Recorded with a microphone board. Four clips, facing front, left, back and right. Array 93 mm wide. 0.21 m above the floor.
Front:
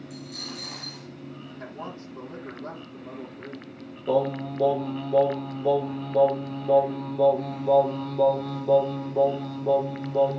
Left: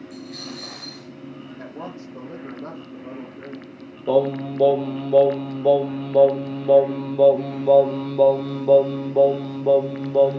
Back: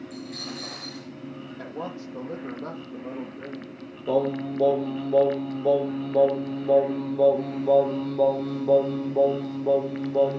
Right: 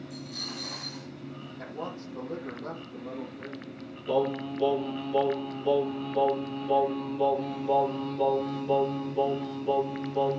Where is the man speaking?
160° left, 6 m.